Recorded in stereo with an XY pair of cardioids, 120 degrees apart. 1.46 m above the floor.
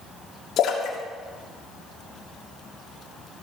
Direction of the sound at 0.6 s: 60° left.